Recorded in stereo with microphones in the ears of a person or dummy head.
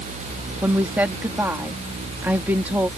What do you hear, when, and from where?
0.6 s a woman speaking: 5° right (ahead or behind)